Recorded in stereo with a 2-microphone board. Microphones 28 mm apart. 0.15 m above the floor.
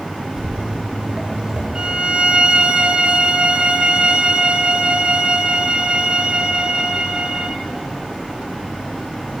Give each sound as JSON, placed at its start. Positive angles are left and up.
{"t": 0.4, "sound": "footsteps", "side_deg": -15, "distance_m": 3.5}
{"t": 1.8, "sound": "a violin", "side_deg": -40, "distance_m": 0.7}